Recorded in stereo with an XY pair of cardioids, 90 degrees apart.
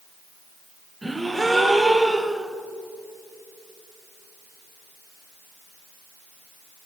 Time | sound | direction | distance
1.0 | a gasp | 20° right | 2.5 m